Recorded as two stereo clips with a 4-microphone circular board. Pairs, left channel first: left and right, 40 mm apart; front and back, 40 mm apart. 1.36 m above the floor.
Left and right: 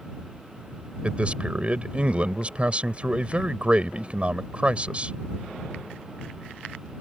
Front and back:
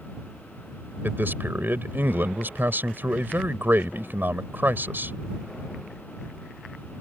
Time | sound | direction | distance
1.0 | a man speaking | 150° right | ?